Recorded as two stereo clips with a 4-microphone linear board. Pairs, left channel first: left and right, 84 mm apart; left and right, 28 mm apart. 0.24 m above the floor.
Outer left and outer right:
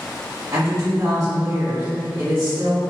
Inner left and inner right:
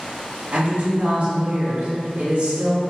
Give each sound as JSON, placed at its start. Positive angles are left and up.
{"t": 0.5, "sound": "a woman speaking", "side_deg": -55, "distance_m": 1.6}